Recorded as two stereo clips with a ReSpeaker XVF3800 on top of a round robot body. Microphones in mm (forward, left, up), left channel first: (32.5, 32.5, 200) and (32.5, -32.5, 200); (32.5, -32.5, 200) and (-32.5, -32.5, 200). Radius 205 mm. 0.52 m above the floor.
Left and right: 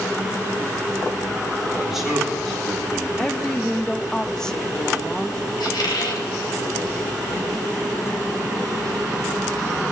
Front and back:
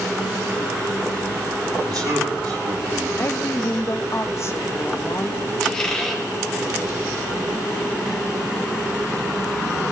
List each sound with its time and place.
1.9 s a man speaking: 175° right, 7 m; by 3.1 s 170° left, 6.5 m
3.2 s a woman speaking: 15° left, 1.5 m
5.6 s a squeak: 80° left, 2.5 m